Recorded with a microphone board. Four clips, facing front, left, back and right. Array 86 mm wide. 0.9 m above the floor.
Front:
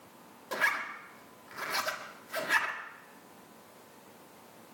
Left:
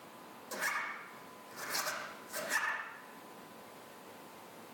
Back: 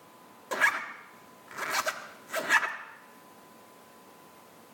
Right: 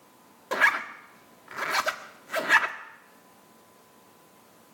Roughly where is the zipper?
Right.